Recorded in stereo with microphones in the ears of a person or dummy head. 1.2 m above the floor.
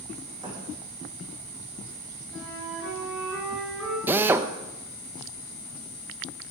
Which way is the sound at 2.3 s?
Centre (ahead or behind).